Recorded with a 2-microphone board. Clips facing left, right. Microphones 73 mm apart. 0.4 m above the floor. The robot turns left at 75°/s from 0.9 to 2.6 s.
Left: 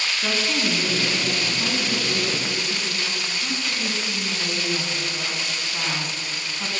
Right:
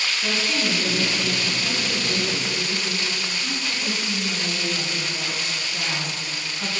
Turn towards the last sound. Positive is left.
turn(degrees=30)